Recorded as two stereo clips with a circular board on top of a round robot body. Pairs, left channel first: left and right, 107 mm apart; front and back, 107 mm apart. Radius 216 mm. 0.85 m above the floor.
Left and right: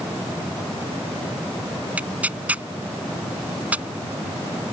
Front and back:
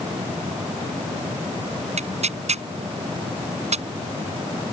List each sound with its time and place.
2.0 s tearing paper: 165° right